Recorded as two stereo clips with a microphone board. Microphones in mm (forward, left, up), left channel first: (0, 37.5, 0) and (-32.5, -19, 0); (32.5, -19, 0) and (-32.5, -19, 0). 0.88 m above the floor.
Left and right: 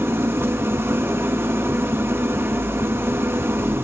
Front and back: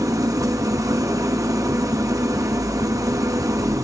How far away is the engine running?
About 0.9 m.